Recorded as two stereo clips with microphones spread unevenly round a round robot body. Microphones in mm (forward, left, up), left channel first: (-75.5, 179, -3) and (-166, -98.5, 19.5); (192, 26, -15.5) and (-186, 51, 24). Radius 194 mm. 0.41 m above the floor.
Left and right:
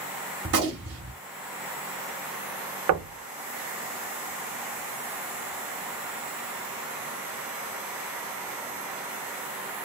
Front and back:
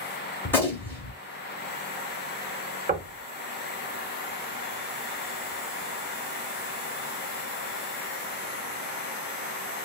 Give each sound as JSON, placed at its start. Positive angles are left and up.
{"t": 0.5, "sound": "a gunshot", "azimuth_deg": -80, "distance_m": 1.0}
{"t": 2.9, "sound": "knocking", "azimuth_deg": -115, "distance_m": 0.6}